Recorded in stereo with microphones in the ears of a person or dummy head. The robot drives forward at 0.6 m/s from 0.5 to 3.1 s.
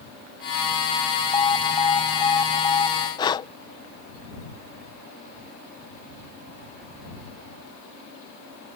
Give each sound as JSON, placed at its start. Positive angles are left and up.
{"t": 1.3, "sound": "an alarm", "side_deg": 15}
{"t": 3.2, "sound": "breathing", "side_deg": 25}